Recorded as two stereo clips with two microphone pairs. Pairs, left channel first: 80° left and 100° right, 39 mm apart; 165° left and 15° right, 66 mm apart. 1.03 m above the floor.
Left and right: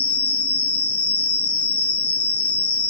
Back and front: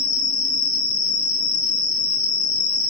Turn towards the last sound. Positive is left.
turn(degrees=125)